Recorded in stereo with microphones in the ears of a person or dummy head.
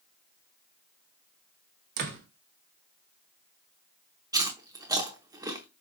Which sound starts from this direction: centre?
Chewing, at 4.3 s.